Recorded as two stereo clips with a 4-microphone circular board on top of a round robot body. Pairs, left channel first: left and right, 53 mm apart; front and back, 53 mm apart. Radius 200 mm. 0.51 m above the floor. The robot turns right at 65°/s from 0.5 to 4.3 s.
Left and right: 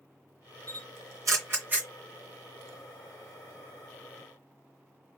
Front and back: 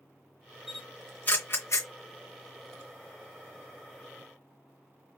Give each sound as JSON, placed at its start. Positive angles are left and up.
{"t": 0.7, "sound": "a camera shutter", "azimuth_deg": -100, "distance_m": 0.8}